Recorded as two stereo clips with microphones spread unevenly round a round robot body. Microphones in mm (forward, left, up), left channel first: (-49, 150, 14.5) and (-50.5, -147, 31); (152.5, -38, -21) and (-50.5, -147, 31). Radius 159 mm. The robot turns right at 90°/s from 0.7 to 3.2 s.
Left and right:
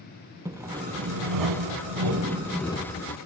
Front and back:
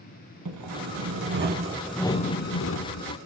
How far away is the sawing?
About 0.9 m.